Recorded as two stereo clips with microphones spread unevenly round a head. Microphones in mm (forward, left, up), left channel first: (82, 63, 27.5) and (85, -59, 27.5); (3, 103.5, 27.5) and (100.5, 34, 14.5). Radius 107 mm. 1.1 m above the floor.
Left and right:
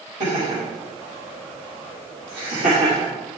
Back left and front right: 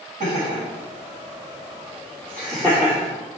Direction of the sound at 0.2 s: 80° right.